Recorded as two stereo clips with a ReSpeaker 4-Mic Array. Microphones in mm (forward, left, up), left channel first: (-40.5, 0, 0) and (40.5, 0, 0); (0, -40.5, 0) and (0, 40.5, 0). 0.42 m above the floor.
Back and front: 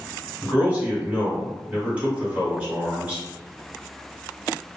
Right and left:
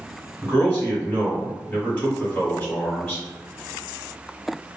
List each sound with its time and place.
0.4 s a man speaking: 45° right, 1.3 m